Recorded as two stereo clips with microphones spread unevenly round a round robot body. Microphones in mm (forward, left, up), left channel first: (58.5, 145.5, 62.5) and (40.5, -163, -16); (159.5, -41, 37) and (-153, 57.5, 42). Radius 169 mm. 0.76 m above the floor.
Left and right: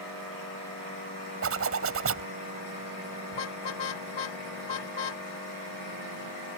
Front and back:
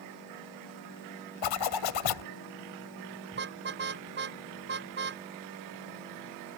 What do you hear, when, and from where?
1.4 s a zipper: 40° right
3.3 s a car horn: 105° left